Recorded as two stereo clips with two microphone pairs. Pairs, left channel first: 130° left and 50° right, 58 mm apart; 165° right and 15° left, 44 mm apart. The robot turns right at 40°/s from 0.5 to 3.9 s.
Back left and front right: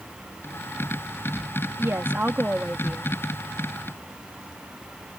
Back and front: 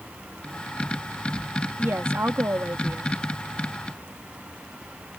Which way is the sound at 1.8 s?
10° right.